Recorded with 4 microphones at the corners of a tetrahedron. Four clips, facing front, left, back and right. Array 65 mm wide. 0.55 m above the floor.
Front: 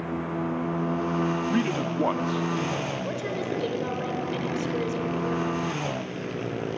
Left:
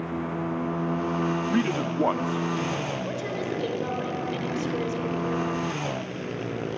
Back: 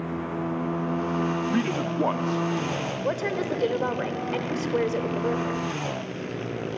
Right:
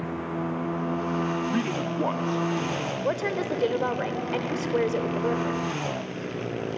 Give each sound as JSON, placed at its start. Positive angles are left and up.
{"t": 1.5, "sound": "a man speaking", "azimuth_deg": 100, "distance_m": 0.6}
{"t": 3.0, "sound": "a woman speaking", "azimuth_deg": -130, "distance_m": 2.5}